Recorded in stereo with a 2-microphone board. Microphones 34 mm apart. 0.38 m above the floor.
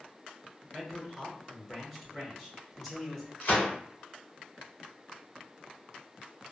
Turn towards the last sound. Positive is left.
turn(degrees=50)  # may be behind; listen again after turning